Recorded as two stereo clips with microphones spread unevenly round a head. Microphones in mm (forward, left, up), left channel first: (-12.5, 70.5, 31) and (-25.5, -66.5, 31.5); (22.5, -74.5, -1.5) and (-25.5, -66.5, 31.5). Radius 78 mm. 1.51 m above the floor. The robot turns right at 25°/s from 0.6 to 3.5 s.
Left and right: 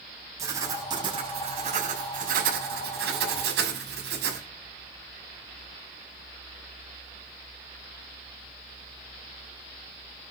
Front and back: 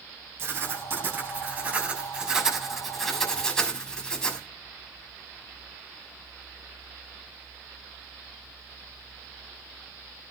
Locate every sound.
0.4 s writing: 165° right, 7 m; by 4.4 s 90° right, 7 m